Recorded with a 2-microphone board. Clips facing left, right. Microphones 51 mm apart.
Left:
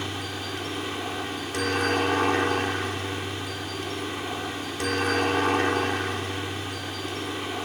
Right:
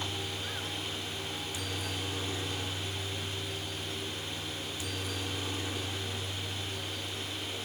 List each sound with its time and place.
0.0 s a helicopter: 65° left (ahead or behind)